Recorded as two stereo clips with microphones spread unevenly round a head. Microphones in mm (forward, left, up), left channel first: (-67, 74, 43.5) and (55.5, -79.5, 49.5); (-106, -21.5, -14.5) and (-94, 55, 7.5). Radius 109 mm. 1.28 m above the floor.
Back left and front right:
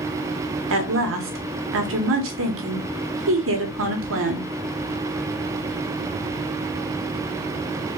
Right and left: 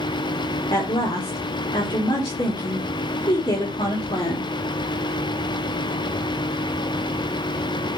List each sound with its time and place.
0.7 s a woman speaking: 55° right, 1.5 m